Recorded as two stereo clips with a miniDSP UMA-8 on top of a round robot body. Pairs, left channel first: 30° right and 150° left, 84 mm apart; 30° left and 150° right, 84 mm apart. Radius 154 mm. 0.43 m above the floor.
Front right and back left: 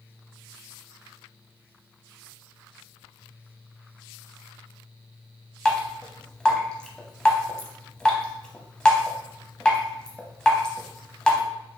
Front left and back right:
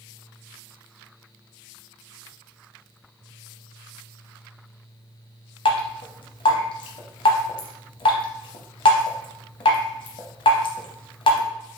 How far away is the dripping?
About 0.7 m.